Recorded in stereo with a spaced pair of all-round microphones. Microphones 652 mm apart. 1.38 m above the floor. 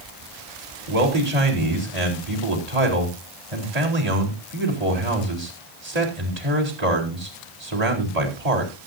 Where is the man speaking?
75° right (ahead or behind), 4 m.